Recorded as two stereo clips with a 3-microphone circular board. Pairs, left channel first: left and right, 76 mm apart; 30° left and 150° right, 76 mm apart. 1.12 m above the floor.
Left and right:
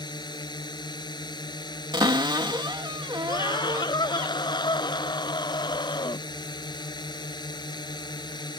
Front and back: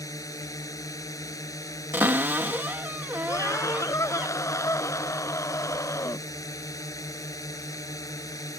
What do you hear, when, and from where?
0.0 s a drone: 70° left
1.9 s a cupboard door: 85° right
3.3 s a scream: 80° left